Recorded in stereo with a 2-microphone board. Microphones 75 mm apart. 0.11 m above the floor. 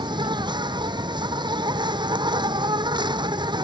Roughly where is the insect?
Right.